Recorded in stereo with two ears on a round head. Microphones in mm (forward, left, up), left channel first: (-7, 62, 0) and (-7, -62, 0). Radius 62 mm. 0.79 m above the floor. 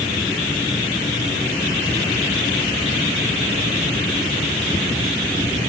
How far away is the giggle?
I don't hear a giggle.